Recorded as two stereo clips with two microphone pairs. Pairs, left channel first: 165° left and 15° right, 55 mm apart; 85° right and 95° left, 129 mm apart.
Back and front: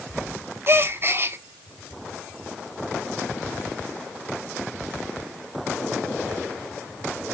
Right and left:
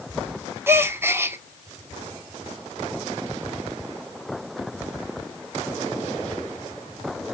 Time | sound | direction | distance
0.7 | a gasp | 25° left | 0.6 m